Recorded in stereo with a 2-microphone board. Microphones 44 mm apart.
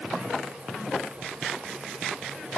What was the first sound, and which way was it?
Only background noise.